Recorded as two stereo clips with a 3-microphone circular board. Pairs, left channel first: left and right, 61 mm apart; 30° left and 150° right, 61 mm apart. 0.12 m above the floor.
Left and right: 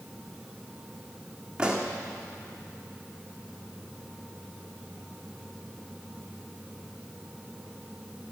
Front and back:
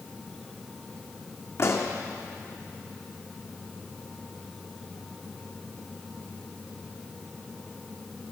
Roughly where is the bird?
I don't hear a bird.